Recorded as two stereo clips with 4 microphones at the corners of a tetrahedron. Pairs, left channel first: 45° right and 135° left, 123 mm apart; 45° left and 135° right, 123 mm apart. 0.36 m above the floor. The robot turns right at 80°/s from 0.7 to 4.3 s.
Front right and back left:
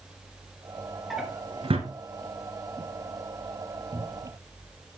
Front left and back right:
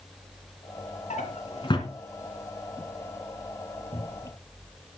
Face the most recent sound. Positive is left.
turn(degrees=120)